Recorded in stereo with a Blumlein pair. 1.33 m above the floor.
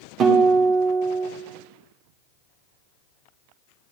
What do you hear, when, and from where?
0.2 s a guitar: 25° right, 2 m